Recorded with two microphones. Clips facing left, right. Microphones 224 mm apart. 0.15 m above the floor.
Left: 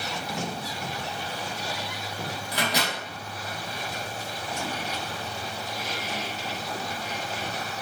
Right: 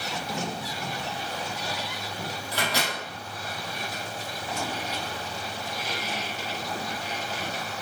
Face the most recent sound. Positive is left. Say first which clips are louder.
# left 1 dB
turn(degrees=15)  # may be behind; listen again after turning